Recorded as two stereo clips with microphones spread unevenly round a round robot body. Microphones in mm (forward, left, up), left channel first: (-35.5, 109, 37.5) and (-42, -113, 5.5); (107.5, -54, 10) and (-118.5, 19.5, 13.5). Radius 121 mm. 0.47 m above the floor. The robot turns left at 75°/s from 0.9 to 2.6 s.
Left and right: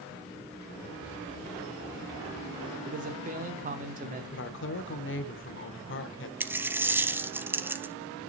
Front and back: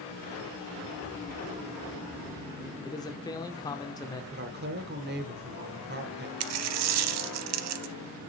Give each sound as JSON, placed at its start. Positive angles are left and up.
{"t": 2.8, "sound": "a man speaking", "azimuth_deg": -85, "distance_m": 1.0}
{"t": 4.3, "sound": "a woman speaking", "azimuth_deg": 120, "distance_m": 1.4}
{"t": 6.4, "sound": "a dropped coin", "azimuth_deg": -175, "distance_m": 0.7}